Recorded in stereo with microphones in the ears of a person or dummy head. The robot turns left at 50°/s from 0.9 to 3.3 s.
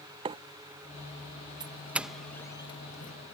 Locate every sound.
0.2 s a microwave: 25° right (ahead or behind)
1.6 s a doorbell: 20° right (ahead or behind); by 3.1 s 40° left (ahead or behind)